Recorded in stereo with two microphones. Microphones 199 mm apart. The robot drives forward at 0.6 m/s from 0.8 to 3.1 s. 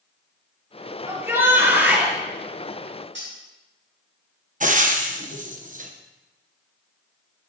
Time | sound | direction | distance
1.1 | a shout | 15° right (ahead or behind) | 2.5 m
3.1 | cutlery clinking | 75° right (ahead or behind) | 4.5 m
4.6 | frying | 40° right (ahead or behind) | 0.9 m